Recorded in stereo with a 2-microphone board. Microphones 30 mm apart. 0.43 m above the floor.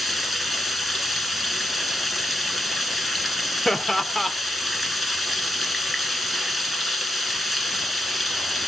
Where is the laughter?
5° left (ahead or behind), 0.8 m.